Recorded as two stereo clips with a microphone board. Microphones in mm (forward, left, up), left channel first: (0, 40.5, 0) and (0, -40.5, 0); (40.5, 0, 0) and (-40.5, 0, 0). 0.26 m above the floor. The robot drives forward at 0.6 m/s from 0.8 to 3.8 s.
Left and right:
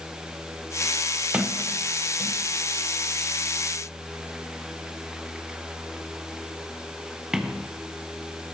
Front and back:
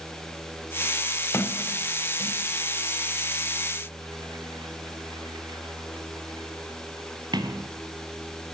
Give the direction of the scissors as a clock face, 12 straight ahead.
No scissors in this recording.